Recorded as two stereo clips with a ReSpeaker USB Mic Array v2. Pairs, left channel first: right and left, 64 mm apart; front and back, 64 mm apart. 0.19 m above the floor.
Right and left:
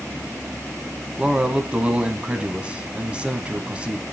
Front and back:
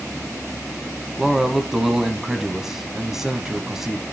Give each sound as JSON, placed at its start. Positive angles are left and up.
{"t": 1.2, "sound": "a man speaking", "azimuth_deg": 110, "distance_m": 1.2}